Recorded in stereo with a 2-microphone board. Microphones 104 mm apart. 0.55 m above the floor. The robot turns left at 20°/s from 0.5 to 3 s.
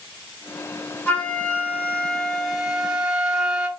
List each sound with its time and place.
1.1 s a flute: 30° left, 0.7 m; by 3.7 s 10° right, 0.7 m